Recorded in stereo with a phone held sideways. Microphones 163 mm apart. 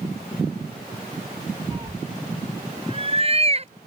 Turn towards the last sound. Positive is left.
turn(degrees=-40)  # may be behind; listen again after turning